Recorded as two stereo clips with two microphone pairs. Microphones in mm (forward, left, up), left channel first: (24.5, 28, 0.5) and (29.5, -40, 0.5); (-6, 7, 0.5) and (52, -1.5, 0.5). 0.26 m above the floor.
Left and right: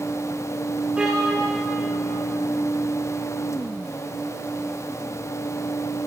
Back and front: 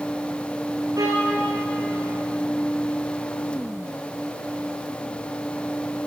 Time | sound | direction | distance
1.0 | a violin | 10° right | 7 m